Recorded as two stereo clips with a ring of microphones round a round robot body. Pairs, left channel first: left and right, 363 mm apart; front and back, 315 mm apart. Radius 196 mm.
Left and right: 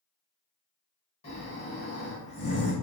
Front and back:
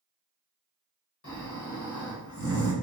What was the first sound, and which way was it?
Snoring, 25° left.